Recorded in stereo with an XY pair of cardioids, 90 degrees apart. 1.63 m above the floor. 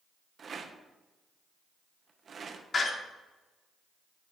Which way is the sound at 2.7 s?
45° left.